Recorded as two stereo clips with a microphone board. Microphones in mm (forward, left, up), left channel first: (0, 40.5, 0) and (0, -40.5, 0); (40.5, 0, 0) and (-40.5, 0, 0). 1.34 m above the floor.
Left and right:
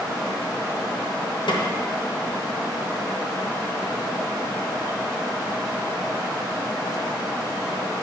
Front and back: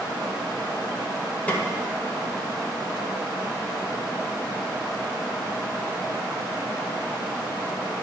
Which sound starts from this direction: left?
A snare drum, at 1.5 s.